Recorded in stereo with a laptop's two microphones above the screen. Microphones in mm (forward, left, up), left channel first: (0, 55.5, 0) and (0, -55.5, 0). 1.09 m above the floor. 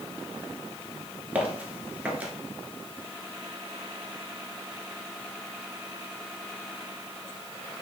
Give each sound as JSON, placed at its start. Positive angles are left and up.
{"t": 1.4, "sound": "footsteps", "side_deg": -15, "distance_m": 1.0}